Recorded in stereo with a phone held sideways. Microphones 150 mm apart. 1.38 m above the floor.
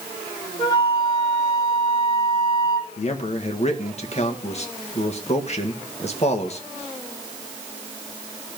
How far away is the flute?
About 3 m.